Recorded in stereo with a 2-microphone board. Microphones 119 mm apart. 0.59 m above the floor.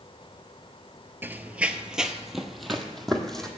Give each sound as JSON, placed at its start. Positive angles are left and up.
{"t": 1.2, "sound": "running footsteps", "side_deg": -15, "distance_m": 0.6}